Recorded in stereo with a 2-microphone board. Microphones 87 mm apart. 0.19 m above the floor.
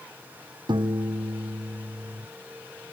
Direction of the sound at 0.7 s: 65° right (ahead or behind).